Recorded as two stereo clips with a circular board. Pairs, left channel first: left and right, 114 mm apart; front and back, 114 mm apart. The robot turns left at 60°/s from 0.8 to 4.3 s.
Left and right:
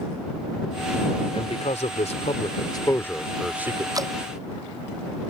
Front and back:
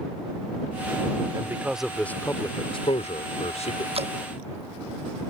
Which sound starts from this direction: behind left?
A man speaking, at 1.3 s.